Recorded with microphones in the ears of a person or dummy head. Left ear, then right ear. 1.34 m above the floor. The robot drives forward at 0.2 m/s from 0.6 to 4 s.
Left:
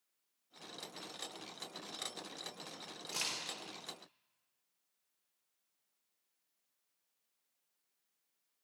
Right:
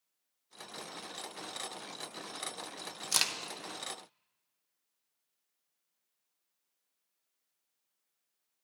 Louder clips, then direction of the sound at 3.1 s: Right 8 dB; 65° right (ahead or behind).